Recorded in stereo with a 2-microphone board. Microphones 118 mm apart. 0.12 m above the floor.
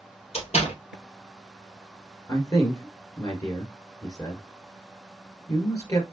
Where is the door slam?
60° left (ahead or behind), 2.5 m.